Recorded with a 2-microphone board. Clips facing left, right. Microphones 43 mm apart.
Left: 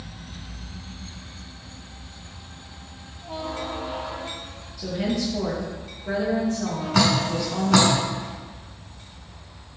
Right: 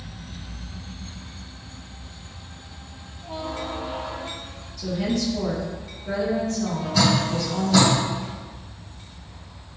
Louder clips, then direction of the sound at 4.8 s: Right 1 dB; 15° left (ahead or behind).